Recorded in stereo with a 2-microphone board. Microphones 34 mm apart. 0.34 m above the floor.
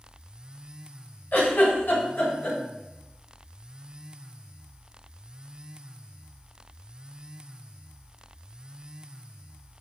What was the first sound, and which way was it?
A giggle, 60° left (ahead or behind).